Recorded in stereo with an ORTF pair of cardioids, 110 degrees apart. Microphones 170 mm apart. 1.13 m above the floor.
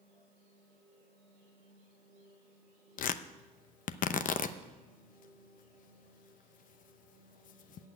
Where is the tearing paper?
55° left, 0.7 m.